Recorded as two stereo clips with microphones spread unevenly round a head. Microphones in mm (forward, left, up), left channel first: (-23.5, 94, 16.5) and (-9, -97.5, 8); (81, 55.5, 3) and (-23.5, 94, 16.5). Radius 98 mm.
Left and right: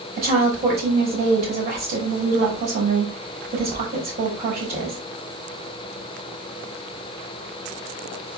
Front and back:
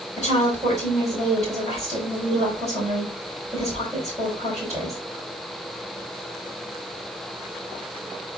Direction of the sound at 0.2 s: 140° right.